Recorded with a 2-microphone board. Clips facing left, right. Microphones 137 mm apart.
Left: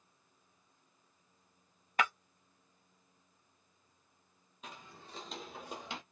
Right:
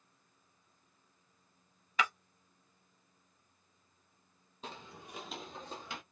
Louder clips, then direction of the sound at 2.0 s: Left 2 dB; 50° left (ahead or behind).